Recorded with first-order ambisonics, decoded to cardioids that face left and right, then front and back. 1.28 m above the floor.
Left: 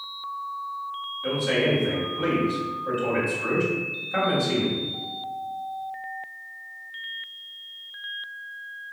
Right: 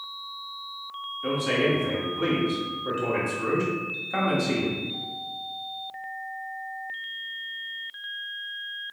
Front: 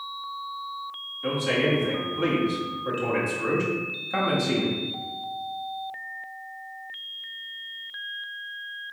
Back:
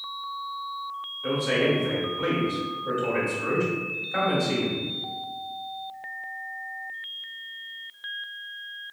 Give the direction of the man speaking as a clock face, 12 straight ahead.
1 o'clock.